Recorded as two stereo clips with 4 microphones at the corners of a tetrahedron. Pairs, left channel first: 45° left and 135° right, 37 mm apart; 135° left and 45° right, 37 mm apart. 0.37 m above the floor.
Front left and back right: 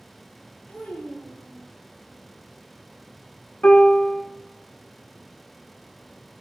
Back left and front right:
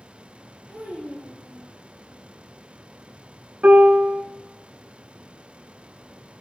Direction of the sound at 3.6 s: 5° right.